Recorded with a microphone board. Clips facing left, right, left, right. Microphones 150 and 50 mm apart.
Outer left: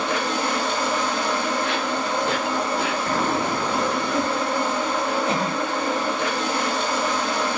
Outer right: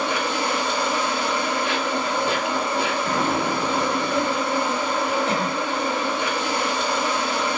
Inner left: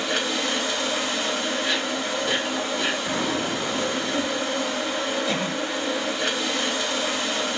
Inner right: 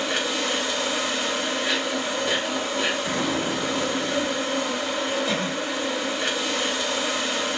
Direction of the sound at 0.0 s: 10° right (ahead or behind).